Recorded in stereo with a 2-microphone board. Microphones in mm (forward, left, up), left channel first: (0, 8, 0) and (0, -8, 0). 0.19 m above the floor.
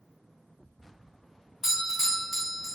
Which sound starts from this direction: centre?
A doorbell, at 1.6 s.